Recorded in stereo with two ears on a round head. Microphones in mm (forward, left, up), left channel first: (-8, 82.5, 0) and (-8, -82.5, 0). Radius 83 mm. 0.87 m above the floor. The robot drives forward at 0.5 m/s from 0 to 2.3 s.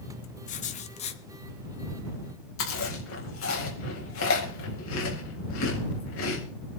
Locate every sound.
0.5 s writing: 45° left (ahead or behind), 1.0 m; by 1.2 s 35° left (ahead or behind), 1.2 m
2.6 s chewing: 85° left, 4 m